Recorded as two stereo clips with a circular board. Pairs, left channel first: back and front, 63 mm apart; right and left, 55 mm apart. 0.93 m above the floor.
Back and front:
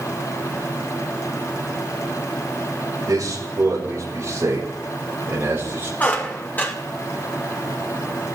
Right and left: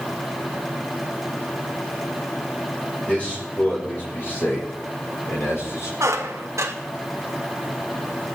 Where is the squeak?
115° left, 1.6 m.